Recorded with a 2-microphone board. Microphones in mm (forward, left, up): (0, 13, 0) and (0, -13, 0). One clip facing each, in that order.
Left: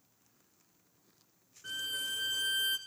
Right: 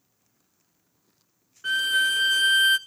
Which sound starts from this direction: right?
A violin, at 1.6 s.